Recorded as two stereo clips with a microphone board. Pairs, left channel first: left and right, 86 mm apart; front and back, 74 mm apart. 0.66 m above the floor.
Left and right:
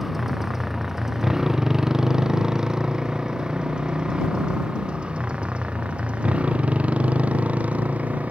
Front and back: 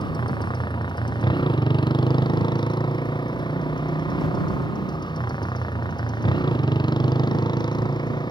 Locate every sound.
0.0 s a motorcycle: 5° right; by 8.3 s 15° right